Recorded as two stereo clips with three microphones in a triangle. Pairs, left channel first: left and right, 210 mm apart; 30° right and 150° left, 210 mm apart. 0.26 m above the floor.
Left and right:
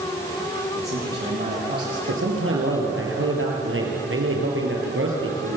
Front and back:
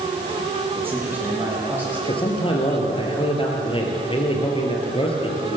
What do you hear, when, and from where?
0.8 s a man speaking: 130° right, 10 m
2.1 s a man speaking: 95° right, 4.5 m